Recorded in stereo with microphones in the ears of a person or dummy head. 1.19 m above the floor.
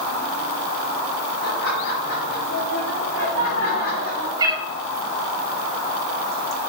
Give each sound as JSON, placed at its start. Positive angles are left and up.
{"t": 1.4, "sound": "laughter", "side_deg": 50, "distance_m": 4.0}
{"t": 4.4, "sound": "a cat meowing", "side_deg": -20, "distance_m": 1.2}